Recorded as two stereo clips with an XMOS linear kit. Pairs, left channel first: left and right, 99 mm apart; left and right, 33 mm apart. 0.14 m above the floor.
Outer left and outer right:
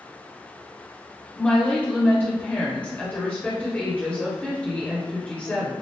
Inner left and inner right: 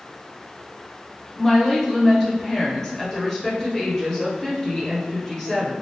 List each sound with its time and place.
1.4 s a woman speaking: 15° left (ahead or behind), 1.4 m